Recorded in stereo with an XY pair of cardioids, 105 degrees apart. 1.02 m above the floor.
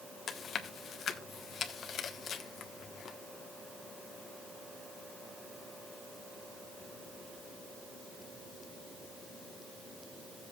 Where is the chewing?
60° left, 1.2 m.